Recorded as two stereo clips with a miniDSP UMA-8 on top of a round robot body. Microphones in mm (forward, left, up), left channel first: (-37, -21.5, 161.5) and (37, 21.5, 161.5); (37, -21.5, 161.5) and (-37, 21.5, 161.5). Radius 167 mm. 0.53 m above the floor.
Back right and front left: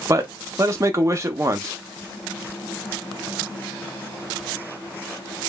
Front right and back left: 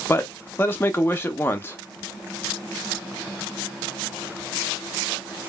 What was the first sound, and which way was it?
A man speaking, 15° left.